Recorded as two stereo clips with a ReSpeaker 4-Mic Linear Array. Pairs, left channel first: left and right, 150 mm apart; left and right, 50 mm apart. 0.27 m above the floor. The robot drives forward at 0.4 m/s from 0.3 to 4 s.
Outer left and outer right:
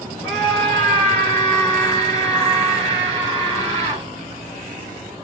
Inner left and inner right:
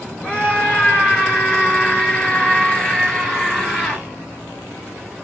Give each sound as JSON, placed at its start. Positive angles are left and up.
{"t": 0.2, "sound": "a scream", "side_deg": 20, "distance_m": 4.5}